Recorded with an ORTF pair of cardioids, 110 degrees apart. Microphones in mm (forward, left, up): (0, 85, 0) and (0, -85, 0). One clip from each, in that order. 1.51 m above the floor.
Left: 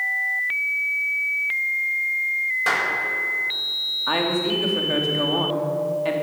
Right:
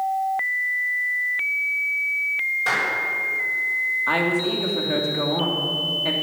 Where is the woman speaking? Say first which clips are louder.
Right 1 dB; straight ahead, 3 m.